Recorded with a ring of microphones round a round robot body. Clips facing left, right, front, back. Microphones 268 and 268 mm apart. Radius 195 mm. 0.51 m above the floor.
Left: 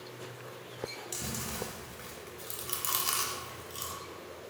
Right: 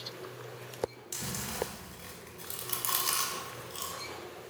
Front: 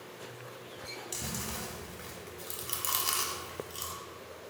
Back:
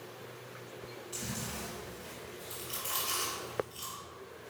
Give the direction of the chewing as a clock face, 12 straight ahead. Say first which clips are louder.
Left 1 dB, even; 12 o'clock.